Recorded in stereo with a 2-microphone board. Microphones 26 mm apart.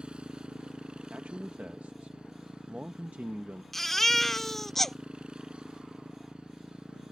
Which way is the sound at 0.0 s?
45° right (ahead or behind).